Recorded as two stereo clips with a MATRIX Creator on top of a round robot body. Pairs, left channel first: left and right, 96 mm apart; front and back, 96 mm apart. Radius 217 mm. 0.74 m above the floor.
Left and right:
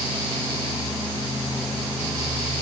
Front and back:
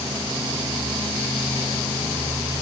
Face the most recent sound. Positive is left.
No sound to turn to.